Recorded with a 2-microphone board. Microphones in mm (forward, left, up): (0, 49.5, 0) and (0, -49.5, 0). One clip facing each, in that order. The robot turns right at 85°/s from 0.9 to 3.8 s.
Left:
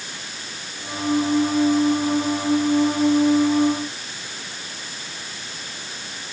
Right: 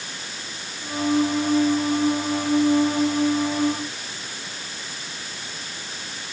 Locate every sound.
Only background noise.